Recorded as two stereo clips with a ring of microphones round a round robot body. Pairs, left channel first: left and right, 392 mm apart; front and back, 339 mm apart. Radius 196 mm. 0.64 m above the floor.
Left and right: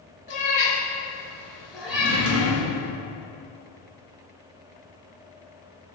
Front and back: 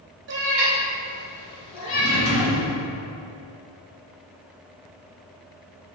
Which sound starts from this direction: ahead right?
A drawer, at 1.9 s.